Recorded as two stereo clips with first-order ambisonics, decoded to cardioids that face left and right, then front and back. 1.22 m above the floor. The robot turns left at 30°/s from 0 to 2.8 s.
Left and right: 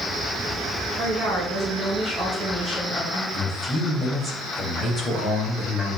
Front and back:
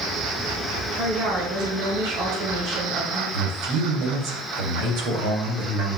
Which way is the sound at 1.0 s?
140° right.